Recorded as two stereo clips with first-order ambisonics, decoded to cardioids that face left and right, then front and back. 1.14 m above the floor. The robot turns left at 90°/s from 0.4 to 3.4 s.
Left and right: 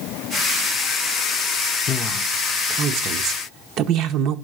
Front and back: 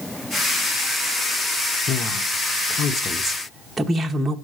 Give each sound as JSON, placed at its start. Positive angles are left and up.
{"t": 1.9, "sound": "a woman speaking", "azimuth_deg": 40, "distance_m": 0.5}